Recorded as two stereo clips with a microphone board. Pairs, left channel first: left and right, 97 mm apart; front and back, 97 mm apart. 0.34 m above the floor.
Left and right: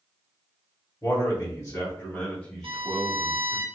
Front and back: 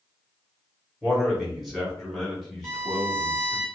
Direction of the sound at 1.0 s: 95° left.